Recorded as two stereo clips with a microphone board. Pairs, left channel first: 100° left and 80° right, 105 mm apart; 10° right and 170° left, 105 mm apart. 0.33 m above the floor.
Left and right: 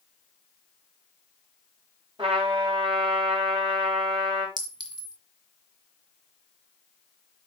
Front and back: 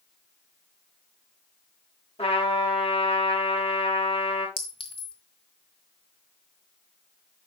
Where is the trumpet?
35° right, 4.5 m.